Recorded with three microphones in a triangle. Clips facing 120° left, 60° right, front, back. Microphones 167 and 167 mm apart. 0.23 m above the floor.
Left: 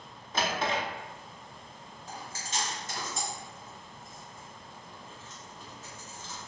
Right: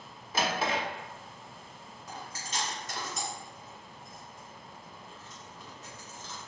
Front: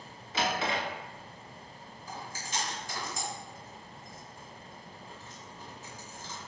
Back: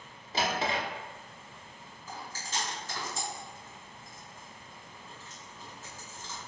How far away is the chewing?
About 1.9 m.